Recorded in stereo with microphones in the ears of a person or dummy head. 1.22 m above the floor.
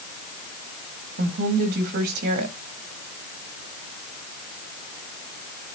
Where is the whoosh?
I don't hear a whoosh.